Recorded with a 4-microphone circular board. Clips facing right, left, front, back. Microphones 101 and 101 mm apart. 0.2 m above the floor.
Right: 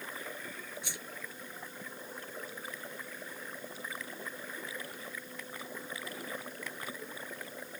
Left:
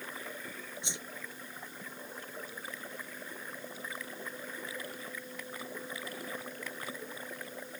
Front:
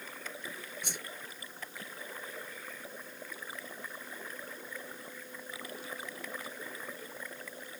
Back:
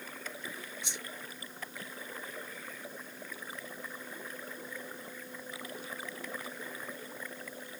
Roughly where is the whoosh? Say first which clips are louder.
Left 1 dB, front 1 dB; ahead left.